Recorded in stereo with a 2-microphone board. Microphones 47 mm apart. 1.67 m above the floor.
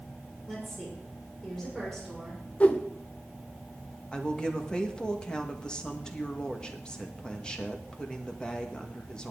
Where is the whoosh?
30° left (ahead or behind), 0.9 m.